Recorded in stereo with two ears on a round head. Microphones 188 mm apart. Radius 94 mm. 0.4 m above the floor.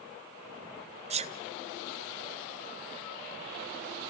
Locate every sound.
1.1 s a sneeze: 30° right (ahead or behind), 1.4 m